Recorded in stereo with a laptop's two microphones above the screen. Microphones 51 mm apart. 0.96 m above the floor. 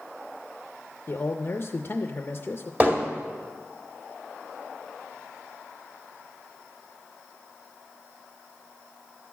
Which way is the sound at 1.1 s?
40° left (ahead or behind).